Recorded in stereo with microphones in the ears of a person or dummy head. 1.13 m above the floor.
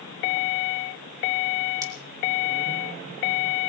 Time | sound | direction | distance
1.8 | scissors | 15° right (ahead or behind) | 1.3 m